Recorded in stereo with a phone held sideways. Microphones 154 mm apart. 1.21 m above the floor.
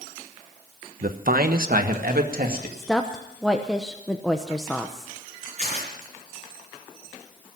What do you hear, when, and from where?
1.0 s a man speaking: 65° right (ahead or behind), 1.0 m; by 2.7 s 70° right (ahead or behind), 2.5 m
2.8 s a woman speaking: centre (ahead or behind), 0.9 m
5.6 s tearing paper: 50° right (ahead or behind), 4.5 m